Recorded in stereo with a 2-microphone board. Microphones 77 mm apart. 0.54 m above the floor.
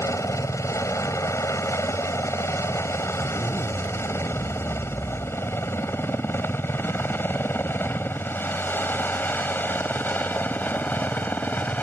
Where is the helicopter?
45° left (ahead or behind); by 11.8 s 25° left (ahead or behind).